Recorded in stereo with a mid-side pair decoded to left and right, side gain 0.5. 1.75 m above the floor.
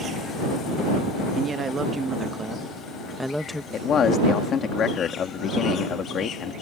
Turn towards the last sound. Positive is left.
turn(degrees=50)